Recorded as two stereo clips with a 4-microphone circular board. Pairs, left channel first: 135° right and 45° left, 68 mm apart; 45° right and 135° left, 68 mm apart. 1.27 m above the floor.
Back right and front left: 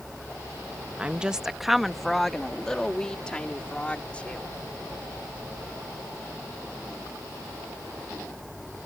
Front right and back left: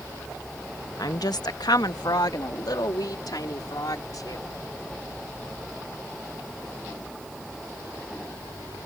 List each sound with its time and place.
1.0 s a woman speaking: 25° right; by 4.5 s 65° right